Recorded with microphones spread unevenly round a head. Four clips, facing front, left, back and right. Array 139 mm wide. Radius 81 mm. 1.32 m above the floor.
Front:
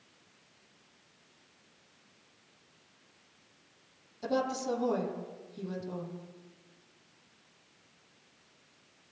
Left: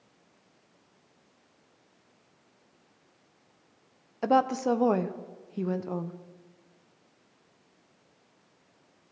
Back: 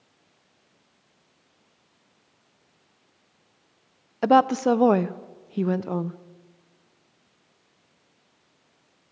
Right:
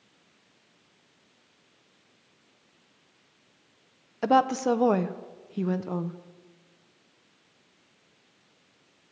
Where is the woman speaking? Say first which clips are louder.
Right 2 dB, back 14 dB; 150° right, 0.9 m.